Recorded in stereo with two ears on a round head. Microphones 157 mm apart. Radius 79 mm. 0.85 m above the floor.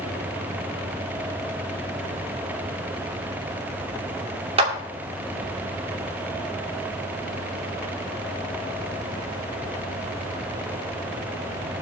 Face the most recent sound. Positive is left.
turn(degrees=-35)  # may be behind; listen again after turning